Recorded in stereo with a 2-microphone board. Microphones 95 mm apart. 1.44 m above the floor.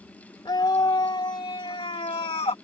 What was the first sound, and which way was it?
A scream, 50° left (ahead or behind).